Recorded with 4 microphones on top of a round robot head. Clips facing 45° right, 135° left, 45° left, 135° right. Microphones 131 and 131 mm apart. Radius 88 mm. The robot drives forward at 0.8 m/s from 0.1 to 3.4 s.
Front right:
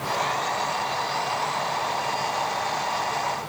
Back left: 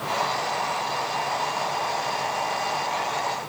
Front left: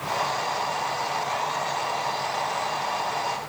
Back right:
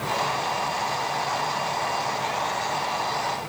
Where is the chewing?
No chewing in this recording.